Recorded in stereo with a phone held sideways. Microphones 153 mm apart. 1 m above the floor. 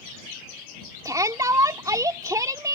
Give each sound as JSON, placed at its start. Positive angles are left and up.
{"t": 1.1, "sound": "a shout", "side_deg": -20}